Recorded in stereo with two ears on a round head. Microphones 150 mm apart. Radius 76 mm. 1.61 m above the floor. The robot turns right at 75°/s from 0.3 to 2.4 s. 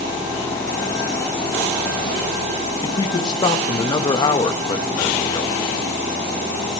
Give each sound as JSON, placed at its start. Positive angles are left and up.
{"t": 2.8, "sound": "a man speaking", "side_deg": 25, "distance_m": 1.6}